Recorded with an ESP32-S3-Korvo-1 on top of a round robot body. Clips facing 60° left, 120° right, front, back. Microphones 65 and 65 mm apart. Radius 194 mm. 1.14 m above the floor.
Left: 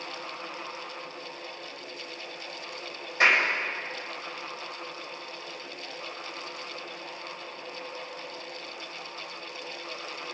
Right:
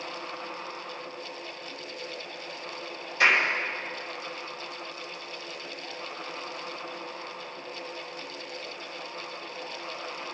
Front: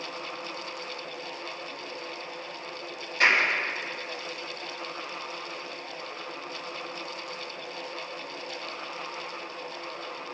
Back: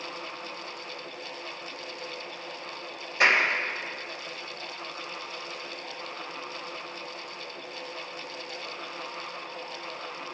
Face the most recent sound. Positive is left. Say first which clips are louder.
# even, even
turn(degrees=115)